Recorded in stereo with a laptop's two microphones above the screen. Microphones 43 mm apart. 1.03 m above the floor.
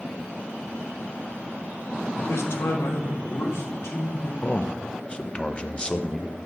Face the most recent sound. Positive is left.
turn(degrees=25)  # may be behind; listen again after turning